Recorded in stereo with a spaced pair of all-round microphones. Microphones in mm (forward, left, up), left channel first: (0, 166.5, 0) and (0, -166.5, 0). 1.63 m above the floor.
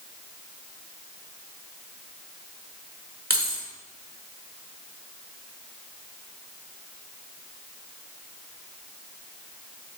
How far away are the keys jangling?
About 1.1 m.